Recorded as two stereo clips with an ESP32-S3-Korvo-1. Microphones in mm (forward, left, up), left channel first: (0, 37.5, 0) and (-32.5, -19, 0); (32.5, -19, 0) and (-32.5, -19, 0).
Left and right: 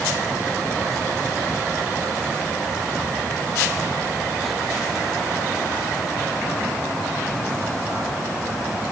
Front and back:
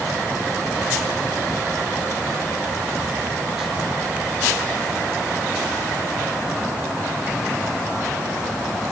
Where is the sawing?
I don't hear sawing.